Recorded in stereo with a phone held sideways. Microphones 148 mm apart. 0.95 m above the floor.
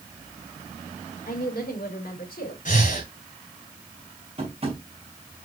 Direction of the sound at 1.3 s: 75° left (ahead or behind).